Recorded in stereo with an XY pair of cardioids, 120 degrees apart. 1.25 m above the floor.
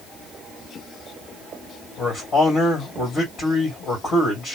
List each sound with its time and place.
2.0 s a man speaking: 45° left, 1.9 m